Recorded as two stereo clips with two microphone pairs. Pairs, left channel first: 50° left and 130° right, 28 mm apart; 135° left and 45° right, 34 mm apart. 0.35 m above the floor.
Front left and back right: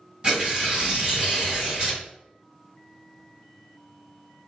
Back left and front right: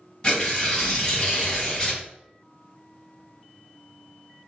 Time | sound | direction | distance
0.2 | tearing paper | 165° right | 2.0 m